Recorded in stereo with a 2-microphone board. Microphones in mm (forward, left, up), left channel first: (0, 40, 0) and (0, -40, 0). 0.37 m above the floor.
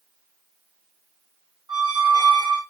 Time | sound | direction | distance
1.7 | a squeak | 60° right (ahead or behind) | 1.1 m